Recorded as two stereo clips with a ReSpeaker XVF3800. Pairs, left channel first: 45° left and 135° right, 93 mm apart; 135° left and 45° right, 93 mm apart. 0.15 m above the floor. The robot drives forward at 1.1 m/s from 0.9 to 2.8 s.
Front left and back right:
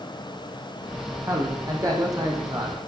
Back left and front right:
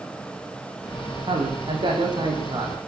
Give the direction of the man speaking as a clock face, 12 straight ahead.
2 o'clock.